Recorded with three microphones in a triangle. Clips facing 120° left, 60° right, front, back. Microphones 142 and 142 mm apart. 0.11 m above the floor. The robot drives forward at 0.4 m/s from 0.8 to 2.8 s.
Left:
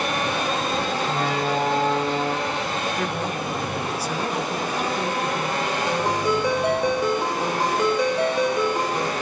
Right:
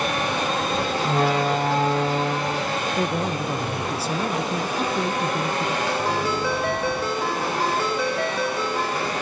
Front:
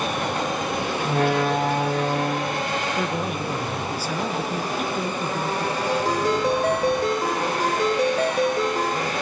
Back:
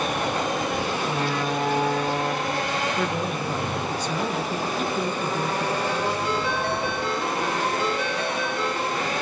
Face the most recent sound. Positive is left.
turn(degrees=45)